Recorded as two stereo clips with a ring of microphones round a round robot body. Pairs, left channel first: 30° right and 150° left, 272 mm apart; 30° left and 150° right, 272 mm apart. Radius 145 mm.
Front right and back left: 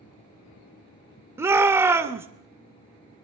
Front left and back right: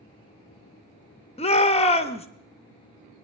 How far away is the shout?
About 0.7 m.